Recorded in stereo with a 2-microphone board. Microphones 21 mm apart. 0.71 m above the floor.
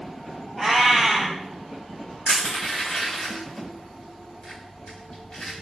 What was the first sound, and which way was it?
A cat meowing, 15° right (ahead or behind).